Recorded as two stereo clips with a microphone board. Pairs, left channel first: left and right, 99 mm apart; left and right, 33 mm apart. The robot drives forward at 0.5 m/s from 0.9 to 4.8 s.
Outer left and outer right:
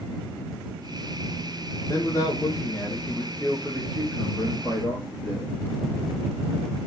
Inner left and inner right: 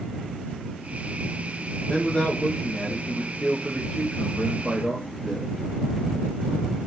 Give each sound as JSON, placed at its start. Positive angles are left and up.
{"t": 1.9, "sound": "a man speaking", "side_deg": 35, "distance_m": 1.5}